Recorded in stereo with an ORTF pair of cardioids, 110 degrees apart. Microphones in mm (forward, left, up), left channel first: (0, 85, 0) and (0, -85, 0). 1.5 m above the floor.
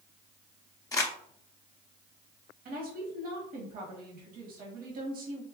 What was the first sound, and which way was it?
Crumpling, 20° left.